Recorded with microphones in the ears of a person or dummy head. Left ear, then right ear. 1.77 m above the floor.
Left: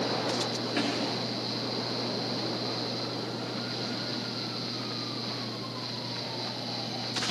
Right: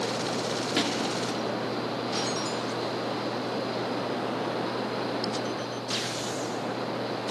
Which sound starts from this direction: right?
A thud, at 0.8 s.